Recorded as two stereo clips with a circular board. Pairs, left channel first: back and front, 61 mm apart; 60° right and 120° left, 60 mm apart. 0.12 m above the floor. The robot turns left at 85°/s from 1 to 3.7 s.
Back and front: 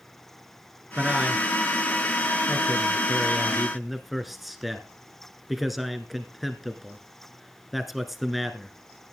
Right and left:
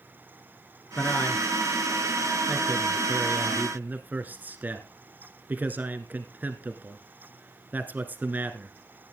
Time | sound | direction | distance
1.0 | a man speaking | 40° right | 1.3 m